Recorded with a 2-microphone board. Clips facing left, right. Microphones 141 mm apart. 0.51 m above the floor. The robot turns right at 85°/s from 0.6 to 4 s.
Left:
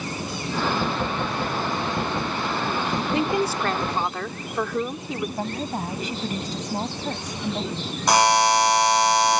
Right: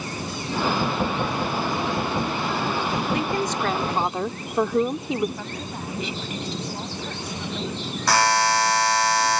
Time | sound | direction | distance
3.1 | a woman speaking | 135° left | ?
5.4 | a woman speaking | 45° left (ahead or behind) | ?
8.1 | a buzzer | 20° left (ahead or behind) | ?